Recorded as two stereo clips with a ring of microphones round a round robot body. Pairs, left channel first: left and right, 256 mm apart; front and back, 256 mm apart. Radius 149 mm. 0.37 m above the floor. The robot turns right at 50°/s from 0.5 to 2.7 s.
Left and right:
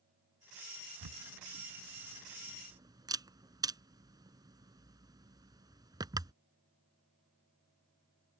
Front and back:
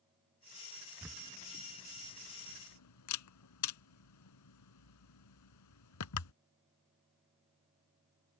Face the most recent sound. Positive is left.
turn(degrees=-15)